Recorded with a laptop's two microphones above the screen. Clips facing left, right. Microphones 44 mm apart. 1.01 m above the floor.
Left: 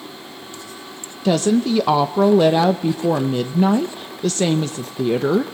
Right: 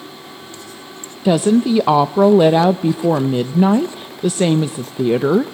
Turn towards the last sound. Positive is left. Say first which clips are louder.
# right 3 dB
turn(degrees=-10)  # may be behind; listen again after turning